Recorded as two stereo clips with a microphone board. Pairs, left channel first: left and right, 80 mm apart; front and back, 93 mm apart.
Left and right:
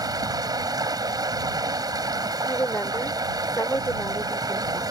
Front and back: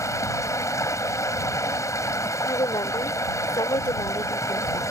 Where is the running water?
55° right.